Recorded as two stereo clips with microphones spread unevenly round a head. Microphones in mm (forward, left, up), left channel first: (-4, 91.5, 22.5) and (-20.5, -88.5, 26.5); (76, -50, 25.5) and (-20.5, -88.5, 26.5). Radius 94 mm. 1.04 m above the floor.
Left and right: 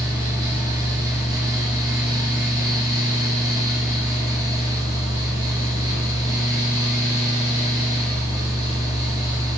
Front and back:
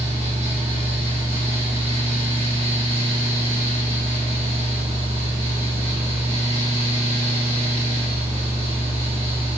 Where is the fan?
165° right, 2.5 m.